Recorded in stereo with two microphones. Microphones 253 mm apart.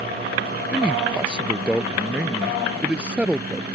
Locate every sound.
0.7 s a man speaking: 5° right (ahead or behind)